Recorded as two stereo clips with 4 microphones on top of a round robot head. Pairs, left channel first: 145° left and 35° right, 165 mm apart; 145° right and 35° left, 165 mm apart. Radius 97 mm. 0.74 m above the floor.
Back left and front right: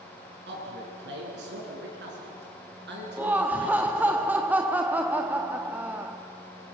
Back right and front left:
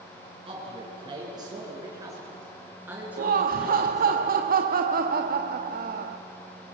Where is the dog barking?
No dog barking in this recording.